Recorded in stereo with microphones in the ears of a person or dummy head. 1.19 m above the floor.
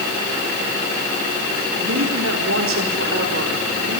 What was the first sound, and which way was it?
A woman speaking, 85° right.